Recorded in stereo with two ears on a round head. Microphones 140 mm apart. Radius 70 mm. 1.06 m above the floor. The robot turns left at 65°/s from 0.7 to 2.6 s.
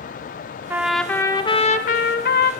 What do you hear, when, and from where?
0.7 s a trumpet: 165° right, 1.3 m; by 2.5 s 80° left, 1.3 m